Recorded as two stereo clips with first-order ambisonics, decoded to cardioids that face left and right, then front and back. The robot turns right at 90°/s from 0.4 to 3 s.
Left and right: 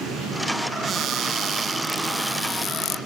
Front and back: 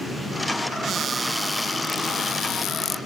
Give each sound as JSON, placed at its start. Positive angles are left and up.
{"t": 0.8, "sound": "a cupboard door", "azimuth_deg": -140, "distance_m": 0.6}